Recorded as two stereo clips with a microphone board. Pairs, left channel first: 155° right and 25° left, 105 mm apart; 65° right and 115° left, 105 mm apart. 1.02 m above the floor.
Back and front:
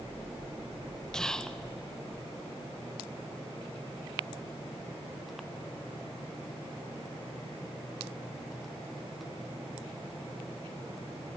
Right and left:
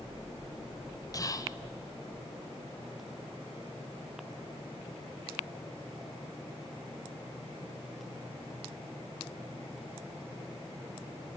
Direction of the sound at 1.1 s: 80° right.